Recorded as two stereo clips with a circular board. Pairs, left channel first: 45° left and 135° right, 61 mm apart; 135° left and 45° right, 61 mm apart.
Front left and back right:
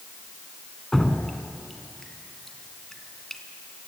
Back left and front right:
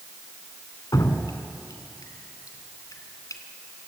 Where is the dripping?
135° left, 2 m.